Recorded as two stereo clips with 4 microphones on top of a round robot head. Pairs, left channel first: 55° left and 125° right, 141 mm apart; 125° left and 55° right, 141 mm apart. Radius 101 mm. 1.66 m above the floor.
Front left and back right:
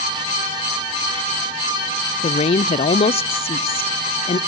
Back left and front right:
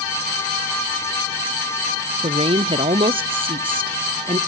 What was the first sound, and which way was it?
A woman speaking, straight ahead.